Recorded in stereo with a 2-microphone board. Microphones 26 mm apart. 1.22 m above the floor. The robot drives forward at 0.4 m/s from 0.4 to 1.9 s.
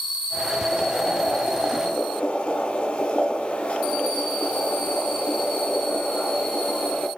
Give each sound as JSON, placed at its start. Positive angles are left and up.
{"t": 0.7, "sound": "boiling", "side_deg": 70, "distance_m": 1.9}